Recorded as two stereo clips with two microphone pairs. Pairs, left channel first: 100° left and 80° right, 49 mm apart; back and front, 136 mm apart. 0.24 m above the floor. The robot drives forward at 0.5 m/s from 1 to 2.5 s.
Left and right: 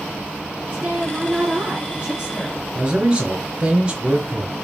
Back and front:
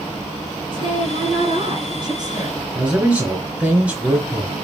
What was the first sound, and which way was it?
A woman speaking, 15° right.